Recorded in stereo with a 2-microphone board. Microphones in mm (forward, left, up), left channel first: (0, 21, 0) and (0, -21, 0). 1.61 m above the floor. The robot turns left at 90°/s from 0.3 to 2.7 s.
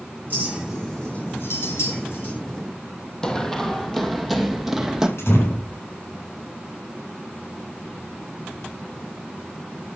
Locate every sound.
0.3 s a clink: 45° right (ahead or behind), 6 m; by 2.4 s 40° left (ahead or behind), 6 m
3.2 s running footsteps: 15° left (ahead or behind), 2.5 m; by 5.1 s 15° right (ahead or behind), 2.5 m
5.2 s a door slam: 75° left (ahead or behind), 8 m